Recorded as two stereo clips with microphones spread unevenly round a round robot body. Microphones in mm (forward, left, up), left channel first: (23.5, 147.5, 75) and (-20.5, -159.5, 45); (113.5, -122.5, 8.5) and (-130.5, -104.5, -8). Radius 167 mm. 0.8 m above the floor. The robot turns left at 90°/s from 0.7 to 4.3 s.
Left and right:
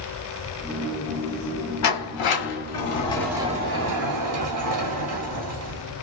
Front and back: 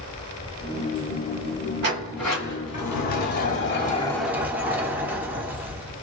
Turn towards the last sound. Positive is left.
turn(degrees=-100)